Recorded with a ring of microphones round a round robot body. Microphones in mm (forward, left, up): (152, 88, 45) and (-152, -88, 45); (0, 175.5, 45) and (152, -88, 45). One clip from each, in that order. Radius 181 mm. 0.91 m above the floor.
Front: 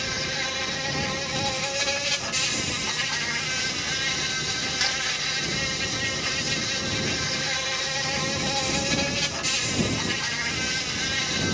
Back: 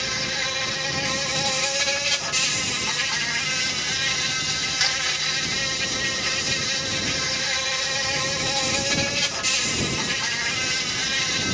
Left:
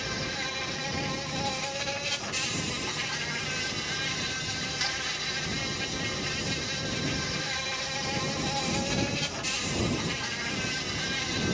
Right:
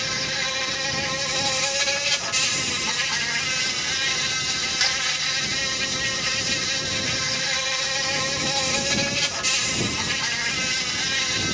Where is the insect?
85° right.